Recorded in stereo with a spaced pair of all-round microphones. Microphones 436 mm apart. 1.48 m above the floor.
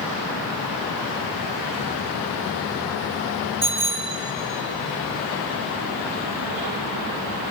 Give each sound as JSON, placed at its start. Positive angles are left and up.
{"t": 3.6, "sound": "a bicycle bell", "side_deg": -30, "distance_m": 4.0}